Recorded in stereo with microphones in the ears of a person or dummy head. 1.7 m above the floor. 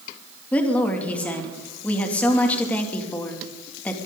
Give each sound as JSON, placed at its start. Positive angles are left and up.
{"t": 0.5, "sound": "a woman speaking", "side_deg": 10, "distance_m": 2.5}